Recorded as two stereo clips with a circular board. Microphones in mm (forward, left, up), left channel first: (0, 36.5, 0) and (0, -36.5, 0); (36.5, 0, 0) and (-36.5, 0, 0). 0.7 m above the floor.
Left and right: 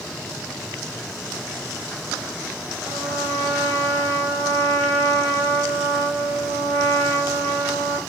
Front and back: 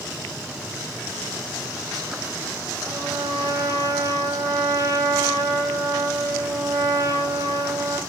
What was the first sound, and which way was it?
A trumpet, 145° right.